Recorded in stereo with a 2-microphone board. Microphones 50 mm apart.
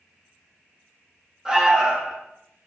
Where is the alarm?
15° right (ahead or behind), 8.5 m.